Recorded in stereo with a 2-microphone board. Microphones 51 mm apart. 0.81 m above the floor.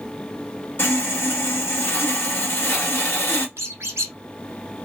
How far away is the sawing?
About 1.8 m.